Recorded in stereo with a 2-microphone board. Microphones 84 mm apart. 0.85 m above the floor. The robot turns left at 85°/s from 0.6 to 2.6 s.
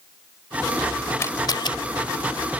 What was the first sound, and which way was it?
A camera shutter, 30° left (ahead or behind).